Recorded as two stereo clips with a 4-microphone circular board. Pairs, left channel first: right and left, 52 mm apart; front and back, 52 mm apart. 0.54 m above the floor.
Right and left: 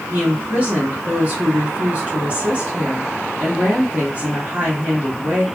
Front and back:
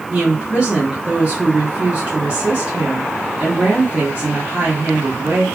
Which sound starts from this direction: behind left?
A woman speaking, at 0.1 s.